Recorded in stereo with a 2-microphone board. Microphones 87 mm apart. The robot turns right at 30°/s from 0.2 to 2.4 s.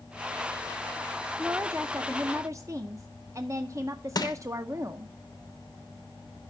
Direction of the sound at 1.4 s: 165° right.